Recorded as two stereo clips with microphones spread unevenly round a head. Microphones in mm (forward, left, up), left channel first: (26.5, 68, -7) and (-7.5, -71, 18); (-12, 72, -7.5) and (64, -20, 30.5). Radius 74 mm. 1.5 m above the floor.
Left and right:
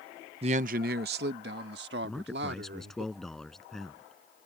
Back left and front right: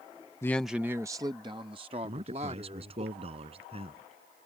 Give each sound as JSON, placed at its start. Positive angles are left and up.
{"t": 0.4, "sound": "a man speaking", "azimuth_deg": -150}
{"t": 2.0, "sound": "a man speaking", "azimuth_deg": -15}